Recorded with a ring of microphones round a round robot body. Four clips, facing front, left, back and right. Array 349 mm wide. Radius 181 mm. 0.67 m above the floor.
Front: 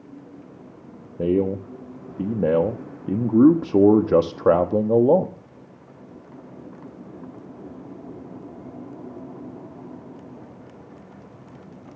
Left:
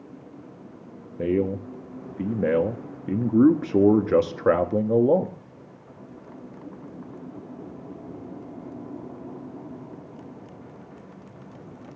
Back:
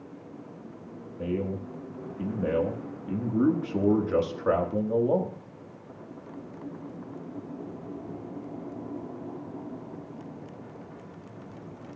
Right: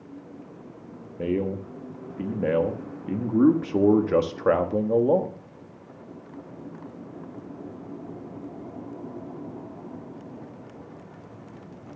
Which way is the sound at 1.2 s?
20° left.